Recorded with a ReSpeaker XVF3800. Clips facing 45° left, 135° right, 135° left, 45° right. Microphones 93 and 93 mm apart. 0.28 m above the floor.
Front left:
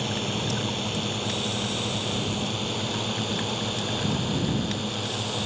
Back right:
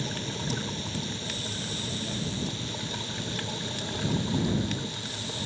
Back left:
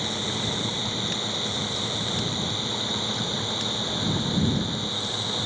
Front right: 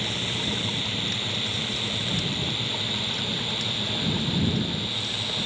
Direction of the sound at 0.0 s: 65° left.